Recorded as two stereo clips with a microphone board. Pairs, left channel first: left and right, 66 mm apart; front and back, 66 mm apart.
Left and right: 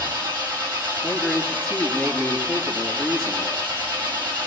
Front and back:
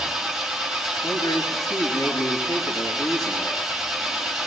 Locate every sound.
0.0 s an engine running: 100° right, 3 m
1.0 s a man speaking: 5° right, 3.5 m